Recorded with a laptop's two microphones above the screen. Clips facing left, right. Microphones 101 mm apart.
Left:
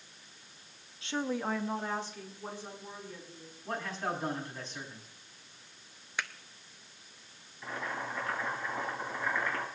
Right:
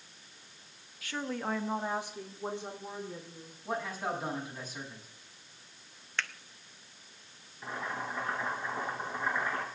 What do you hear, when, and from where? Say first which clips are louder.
1.0 s a woman speaking: left 2 dB; 25° left (ahead or behind), 1.1 m; by 3.5 s 30° right (ahead or behind), 4 m
3.6 s a man speaking: right 1 dB; 10° right (ahead or behind), 6 m
6.2 s a finger snap: even; 10° left (ahead or behind), 0.6 m
7.6 s boiling: even; 20° right (ahead or behind), 6.5 m